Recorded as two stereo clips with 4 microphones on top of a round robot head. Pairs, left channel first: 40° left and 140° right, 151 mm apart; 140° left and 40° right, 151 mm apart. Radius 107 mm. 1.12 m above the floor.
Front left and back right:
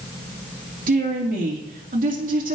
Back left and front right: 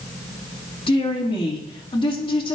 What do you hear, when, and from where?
0.9 s a woman speaking: 165° right, 2.5 m